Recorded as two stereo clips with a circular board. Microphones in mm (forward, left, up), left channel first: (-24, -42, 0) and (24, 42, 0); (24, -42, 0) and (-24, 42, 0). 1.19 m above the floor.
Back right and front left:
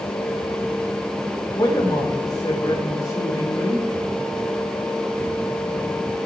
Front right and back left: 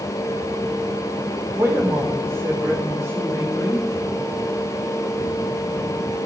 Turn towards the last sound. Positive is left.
turn(degrees=-175)